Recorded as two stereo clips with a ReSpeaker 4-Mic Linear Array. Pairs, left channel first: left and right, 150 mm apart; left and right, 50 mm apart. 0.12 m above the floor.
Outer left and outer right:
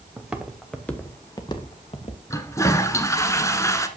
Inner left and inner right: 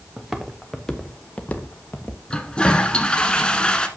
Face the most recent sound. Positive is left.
turn(degrees=20)  # may be behind; listen again after turning